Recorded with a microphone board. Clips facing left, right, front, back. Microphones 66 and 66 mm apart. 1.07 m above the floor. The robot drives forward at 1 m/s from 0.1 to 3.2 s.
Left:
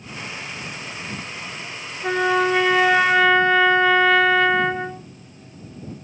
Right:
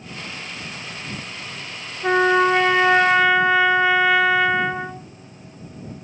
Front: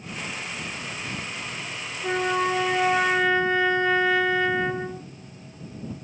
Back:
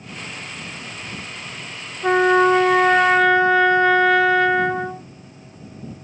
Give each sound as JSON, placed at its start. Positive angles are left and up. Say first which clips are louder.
{"t": 2.0, "sound": "a trumpet", "louder": "right 3 dB, back 10 dB", "azimuth_deg": -160, "distance_m": 1.0}